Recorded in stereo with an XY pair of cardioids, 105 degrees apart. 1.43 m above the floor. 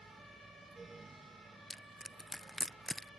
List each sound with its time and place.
0.0 s a fan: 25° right
1.7 s crushing: 5° left